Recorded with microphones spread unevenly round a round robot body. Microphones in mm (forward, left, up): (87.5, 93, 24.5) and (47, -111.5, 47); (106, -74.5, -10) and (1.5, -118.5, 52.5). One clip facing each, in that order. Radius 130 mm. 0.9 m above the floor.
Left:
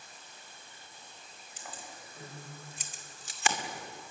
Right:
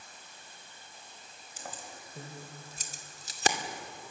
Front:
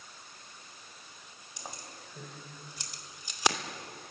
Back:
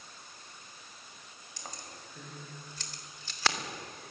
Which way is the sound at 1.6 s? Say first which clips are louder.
Right 3 dB, front 1 dB; 55° right.